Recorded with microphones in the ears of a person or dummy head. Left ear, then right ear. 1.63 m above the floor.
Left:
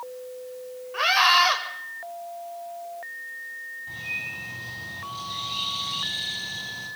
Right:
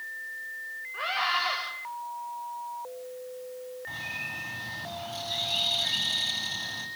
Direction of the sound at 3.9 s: 50° right (ahead or behind).